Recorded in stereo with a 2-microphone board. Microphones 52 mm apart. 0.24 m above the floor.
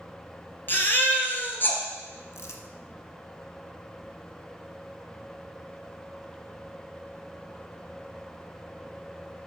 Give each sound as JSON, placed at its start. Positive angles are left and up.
{"t": 0.7, "sound": "a baby crying", "side_deg": 40, "distance_m": 2.0}
{"t": 2.3, "sound": "crumpling", "side_deg": 65, "distance_m": 1.5}